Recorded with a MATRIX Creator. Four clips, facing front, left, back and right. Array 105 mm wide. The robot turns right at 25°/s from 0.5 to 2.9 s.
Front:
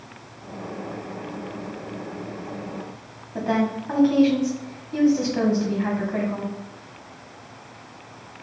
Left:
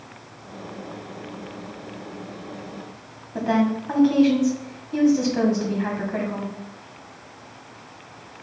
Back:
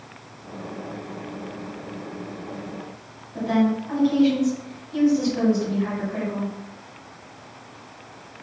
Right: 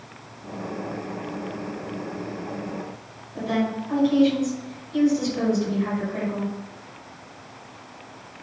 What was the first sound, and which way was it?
A woman speaking, 55° left.